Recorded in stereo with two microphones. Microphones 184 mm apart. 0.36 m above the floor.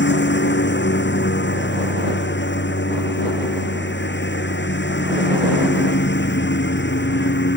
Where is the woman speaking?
No woman speaking in this recording.